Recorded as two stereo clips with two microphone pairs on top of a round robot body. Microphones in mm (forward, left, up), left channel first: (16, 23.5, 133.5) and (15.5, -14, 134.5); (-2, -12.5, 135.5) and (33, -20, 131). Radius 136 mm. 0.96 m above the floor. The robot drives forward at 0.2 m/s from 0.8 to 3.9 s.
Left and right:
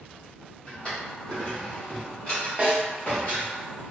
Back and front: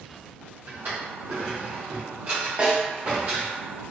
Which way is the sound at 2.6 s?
55° right.